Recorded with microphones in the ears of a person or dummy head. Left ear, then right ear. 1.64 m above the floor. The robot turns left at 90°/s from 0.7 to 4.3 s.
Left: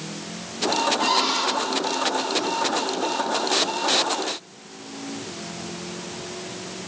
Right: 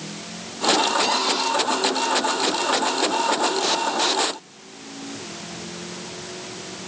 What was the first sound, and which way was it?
A cupboard door, straight behind.